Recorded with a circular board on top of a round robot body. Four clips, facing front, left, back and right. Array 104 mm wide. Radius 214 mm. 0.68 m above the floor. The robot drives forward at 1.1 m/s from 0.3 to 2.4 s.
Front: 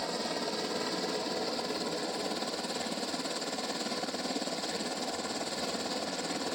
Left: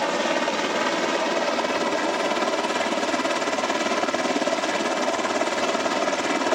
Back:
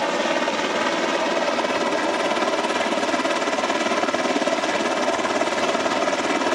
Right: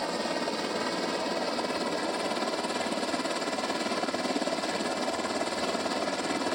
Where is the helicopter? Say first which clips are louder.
Left 8 dB, back 13 dB; 145° left; by 6.5 s 150° left.